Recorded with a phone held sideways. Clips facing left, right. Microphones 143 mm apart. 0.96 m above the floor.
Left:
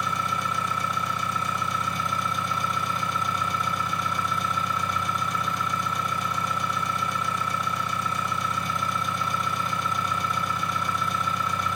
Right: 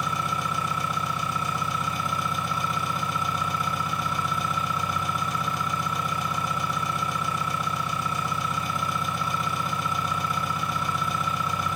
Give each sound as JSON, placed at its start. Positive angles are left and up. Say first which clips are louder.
{"t": 0.0, "sound": "an engine running", "louder": "even", "side_deg": -5, "distance_m": 3.0}